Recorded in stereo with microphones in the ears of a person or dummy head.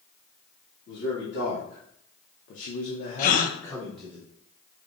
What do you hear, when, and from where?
0.9 s a man speaking: 70° left (ahead or behind), 1.7 m; by 4.2 s 5° right (ahead or behind), 0.9 m
3.2 s a gasp: 50° left (ahead or behind), 0.5 m